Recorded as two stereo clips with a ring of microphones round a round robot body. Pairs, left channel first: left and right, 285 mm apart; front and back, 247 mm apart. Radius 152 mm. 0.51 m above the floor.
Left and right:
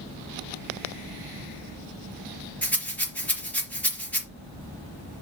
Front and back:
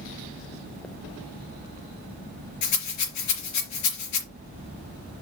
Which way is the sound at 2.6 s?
5° left.